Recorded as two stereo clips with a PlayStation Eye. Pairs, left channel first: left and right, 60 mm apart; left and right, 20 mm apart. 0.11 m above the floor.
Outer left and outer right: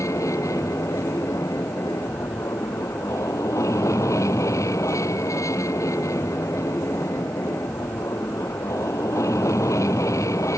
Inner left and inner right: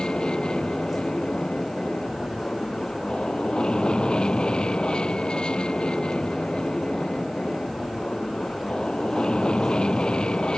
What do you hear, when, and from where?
0.0 s an aircraft: 60° left (ahead or behind)